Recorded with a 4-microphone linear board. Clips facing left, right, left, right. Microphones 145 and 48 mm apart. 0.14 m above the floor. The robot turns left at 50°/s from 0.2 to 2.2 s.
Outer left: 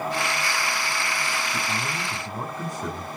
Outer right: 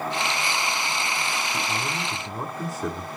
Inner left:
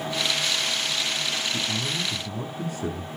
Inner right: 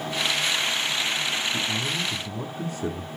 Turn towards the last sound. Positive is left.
turn(degrees=-5)  # may be behind; listen again after turning